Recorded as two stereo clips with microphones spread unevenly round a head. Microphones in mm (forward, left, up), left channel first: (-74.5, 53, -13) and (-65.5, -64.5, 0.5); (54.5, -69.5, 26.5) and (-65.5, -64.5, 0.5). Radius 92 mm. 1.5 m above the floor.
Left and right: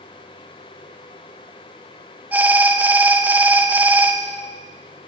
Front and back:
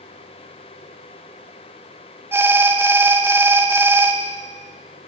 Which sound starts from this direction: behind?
An alarm, at 2.3 s.